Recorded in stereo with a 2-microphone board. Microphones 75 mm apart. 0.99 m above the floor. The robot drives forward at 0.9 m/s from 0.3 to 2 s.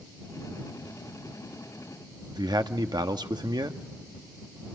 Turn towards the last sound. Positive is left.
turn(degrees=-65)  # may be behind; listen again after turning